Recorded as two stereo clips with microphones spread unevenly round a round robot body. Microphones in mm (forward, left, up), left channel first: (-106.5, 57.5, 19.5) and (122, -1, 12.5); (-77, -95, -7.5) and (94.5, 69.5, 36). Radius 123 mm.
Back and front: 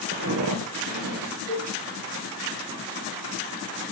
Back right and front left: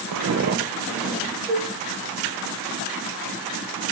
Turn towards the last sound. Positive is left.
turn(degrees=130)